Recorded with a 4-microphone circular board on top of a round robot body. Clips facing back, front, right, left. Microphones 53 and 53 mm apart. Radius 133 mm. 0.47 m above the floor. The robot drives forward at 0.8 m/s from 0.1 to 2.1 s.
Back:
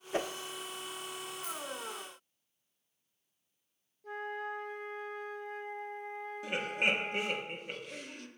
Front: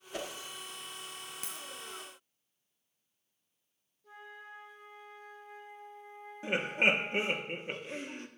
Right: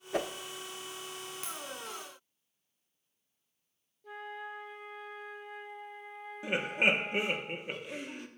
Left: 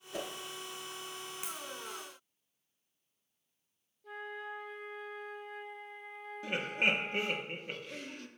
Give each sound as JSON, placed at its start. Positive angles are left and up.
{"t": 0.1, "sound": "a whoosh", "azimuth_deg": -125, "distance_m": 0.6}
{"t": 1.4, "sound": "a dropped coin", "azimuth_deg": 10, "distance_m": 1.0}
{"t": 4.0, "sound": "a flute", "azimuth_deg": 180, "distance_m": 1.1}
{"t": 6.4, "sound": "laughter", "azimuth_deg": -35, "distance_m": 1.3}